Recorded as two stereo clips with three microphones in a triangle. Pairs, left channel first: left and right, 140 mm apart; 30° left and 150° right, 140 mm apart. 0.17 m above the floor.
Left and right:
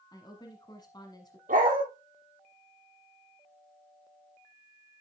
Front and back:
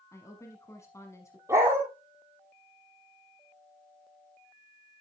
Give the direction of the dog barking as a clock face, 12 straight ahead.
3 o'clock.